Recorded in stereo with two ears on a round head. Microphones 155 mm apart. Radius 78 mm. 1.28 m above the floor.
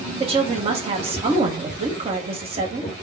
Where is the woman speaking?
35° right (ahead or behind), 1.5 m.